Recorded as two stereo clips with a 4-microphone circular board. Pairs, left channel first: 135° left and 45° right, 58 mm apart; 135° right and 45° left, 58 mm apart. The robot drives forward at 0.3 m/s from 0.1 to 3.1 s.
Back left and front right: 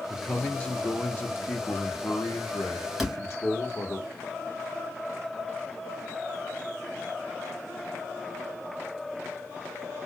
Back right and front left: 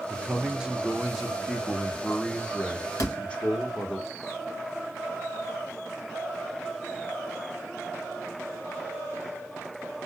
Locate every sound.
0.1 s a man speaking: 65° left, 0.7 m; by 4.0 s 160° left, 1.0 m
3.0 s a door slam: 135° right, 1.7 m